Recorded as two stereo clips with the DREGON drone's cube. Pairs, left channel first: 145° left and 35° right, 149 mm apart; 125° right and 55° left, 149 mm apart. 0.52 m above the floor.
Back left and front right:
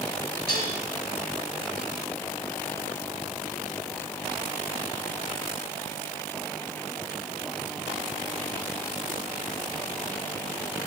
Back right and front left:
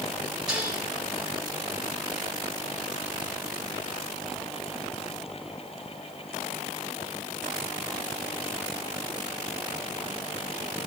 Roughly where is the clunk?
No clunk in this recording.